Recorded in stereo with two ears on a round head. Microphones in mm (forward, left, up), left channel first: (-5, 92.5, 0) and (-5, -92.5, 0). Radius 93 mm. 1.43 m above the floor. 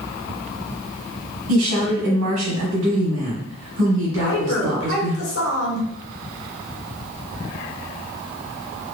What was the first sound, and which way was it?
A woman speaking, 80° right.